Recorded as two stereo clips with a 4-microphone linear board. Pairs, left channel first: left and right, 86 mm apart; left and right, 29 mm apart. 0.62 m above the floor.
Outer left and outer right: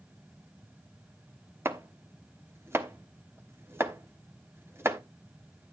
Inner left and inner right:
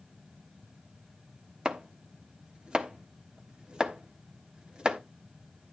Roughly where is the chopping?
Right.